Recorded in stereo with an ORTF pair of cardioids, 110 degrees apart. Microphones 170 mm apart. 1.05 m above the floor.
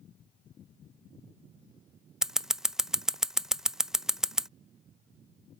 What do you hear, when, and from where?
2.2 s scissors: 5° right